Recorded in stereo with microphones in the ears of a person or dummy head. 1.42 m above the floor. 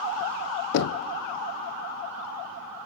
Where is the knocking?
80° left, 0.5 m.